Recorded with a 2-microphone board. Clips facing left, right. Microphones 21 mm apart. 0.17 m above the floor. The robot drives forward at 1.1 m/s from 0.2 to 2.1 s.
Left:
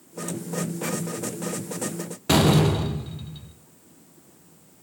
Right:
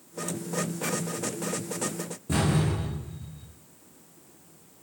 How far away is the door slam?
About 3 m.